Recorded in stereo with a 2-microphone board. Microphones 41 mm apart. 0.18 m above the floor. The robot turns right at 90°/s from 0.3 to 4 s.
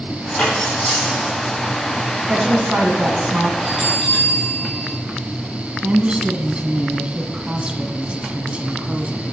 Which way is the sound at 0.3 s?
55° left (ahead or behind).